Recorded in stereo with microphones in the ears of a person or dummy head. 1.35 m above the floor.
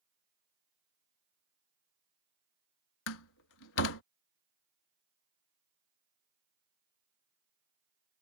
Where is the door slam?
75° left (ahead or behind).